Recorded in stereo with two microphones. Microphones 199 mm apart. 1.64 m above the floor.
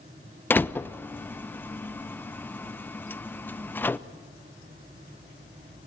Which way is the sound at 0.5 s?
10° left (ahead or behind).